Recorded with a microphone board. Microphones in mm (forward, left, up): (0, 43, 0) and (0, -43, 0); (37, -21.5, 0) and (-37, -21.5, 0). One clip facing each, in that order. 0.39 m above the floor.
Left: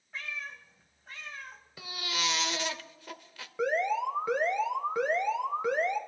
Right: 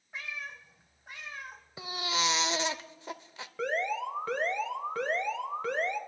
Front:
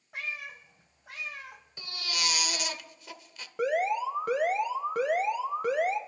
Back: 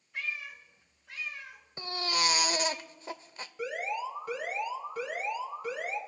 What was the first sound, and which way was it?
A cat meowing, 15° right.